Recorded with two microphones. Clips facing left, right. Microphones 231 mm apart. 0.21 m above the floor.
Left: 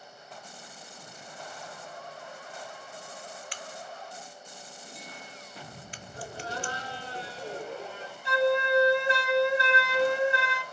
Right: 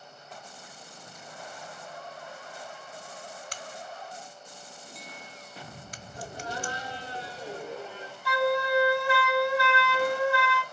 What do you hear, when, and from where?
3.5 s a crack: 45° right (ahead or behind), 0.7 m
6.1 s laughter: 15° right (ahead or behind), 2.5 m
8.2 s a flute: 20° left (ahead or behind), 0.8 m